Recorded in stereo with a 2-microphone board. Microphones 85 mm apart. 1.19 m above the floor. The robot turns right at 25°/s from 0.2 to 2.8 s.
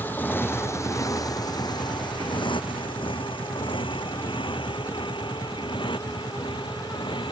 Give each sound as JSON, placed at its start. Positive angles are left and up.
{"t": 0.0, "sound": "a motorcycle", "side_deg": 25}